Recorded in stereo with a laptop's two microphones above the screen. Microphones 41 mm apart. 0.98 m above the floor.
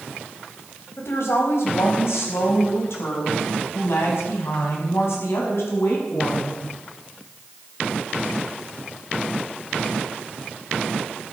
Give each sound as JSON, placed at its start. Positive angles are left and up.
{"t": 1.0, "sound": "a woman speaking", "side_deg": 80, "distance_m": 5.0}